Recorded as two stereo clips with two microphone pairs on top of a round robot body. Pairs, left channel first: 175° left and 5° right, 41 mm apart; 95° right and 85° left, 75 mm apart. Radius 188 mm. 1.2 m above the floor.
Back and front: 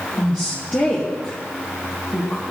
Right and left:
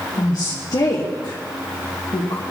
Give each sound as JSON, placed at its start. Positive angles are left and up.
{"t": 0.2, "sound": "a woman speaking", "azimuth_deg": -135, "distance_m": 2.0}